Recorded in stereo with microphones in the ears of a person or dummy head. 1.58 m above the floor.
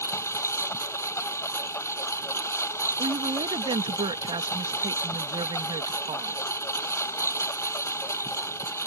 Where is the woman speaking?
35° right (ahead or behind).